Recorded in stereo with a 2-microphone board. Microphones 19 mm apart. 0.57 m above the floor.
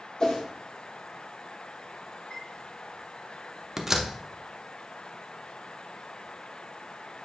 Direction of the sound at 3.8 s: 15° right (ahead or behind).